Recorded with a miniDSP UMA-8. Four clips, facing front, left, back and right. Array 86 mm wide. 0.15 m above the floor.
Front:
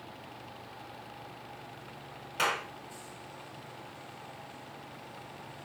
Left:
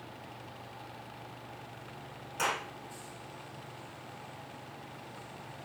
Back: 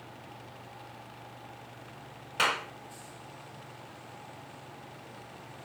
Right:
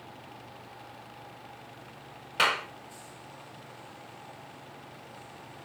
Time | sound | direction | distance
2.4 | a clap | 110° right | 1.0 m